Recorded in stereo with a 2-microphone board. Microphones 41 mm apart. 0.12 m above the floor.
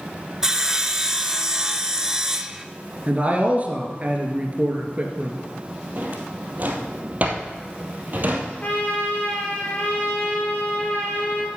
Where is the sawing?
15° right (ahead or behind), 0.6 m.